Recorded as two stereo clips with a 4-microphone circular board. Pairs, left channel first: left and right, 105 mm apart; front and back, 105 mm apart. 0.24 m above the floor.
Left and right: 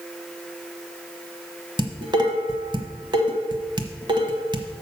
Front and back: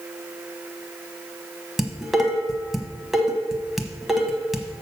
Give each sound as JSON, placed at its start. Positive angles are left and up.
{"t": 1.8, "sound": "dishes clattering", "azimuth_deg": -95, "distance_m": 1.0}